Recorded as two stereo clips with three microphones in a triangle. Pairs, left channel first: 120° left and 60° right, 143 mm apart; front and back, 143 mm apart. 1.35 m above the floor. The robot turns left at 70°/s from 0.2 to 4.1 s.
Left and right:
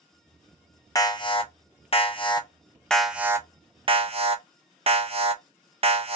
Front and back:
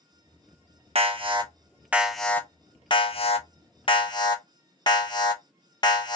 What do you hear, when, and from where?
0.9 s an alarm: 175° left, 0.7 m; by 6.2 s 45° right, 0.7 m